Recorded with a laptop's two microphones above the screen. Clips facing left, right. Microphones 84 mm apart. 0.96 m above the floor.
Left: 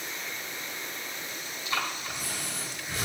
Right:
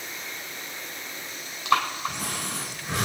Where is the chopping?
I don't hear chopping.